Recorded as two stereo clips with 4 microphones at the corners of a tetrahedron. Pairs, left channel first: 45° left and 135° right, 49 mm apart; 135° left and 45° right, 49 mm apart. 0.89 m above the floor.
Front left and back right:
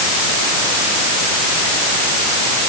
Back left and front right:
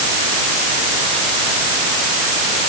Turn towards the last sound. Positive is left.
No sound to turn to.